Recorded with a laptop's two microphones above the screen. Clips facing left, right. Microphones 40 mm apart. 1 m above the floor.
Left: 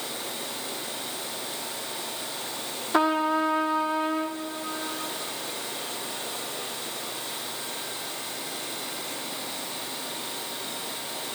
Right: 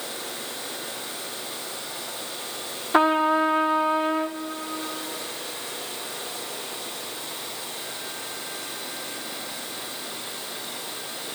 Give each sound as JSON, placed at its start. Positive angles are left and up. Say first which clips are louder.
{"t": 2.9, "sound": "a trumpet", "louder": "right 4 dB", "side_deg": -20, "distance_m": 0.5}